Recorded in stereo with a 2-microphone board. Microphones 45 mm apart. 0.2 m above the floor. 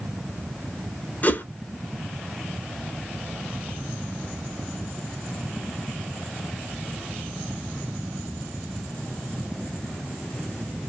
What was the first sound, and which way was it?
A whoosh, 40° left (ahead or behind).